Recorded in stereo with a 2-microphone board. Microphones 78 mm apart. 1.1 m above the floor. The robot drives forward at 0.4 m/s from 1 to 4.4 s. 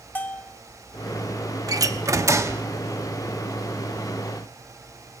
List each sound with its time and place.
0.1 s a bell: 25° left (ahead or behind), 0.9 m
1.7 s a door slam: 50° right (ahead or behind), 0.9 m; by 2.6 s 35° right (ahead or behind), 1.1 m